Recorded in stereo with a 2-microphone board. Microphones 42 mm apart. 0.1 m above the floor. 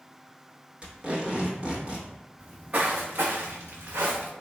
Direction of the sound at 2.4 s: 30° right (ahead or behind).